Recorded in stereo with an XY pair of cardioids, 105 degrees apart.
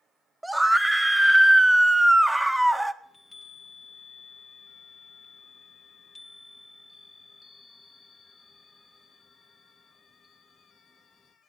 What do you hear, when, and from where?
0.4 s a scream: 5° right, 1.6 m
3.0 s a chime: 30° left, 2 m